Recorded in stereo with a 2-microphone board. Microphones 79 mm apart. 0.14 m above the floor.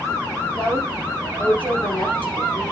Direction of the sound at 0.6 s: 15° left (ahead or behind).